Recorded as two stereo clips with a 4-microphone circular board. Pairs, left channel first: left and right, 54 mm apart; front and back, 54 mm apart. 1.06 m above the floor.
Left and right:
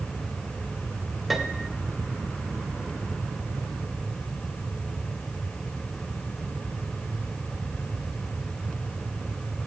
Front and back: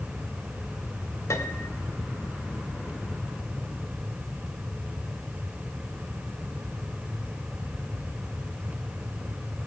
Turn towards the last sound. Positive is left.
turn(degrees=-5)